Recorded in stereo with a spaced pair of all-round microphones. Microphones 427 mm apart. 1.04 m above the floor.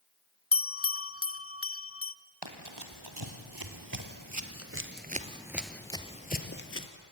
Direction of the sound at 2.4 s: 65° right (ahead or behind).